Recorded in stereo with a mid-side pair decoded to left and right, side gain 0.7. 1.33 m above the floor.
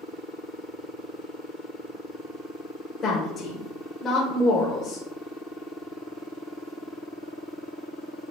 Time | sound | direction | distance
3.0 | a woman speaking | 30° left | 0.8 m